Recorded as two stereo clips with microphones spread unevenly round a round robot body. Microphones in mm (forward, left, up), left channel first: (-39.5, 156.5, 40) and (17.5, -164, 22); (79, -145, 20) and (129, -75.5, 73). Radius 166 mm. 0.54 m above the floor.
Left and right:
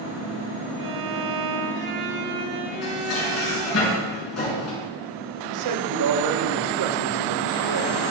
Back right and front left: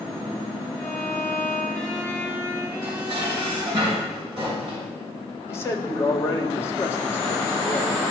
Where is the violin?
70° right, 3 m.